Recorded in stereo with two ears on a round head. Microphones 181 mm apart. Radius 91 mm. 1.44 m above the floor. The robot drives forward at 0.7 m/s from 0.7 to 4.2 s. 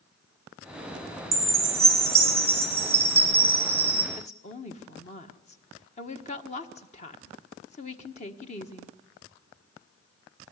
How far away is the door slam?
No door slam in this recording.